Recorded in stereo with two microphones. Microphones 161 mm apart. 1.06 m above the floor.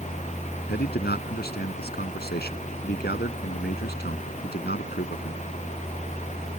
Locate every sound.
0.7 s a man speaking: 85° left